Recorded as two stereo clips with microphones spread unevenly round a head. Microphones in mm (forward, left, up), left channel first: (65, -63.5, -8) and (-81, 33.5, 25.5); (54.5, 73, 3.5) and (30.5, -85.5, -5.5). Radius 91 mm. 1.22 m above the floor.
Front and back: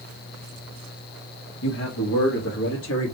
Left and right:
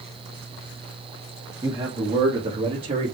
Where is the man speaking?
25° right, 2 m; by 3.1 s 45° right, 2.5 m.